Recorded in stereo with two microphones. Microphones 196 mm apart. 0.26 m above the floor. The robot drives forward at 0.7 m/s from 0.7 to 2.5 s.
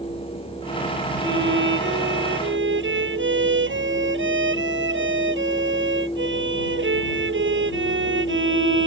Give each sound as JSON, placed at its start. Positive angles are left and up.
{"t": 1.2, "sound": "a violin", "side_deg": -75}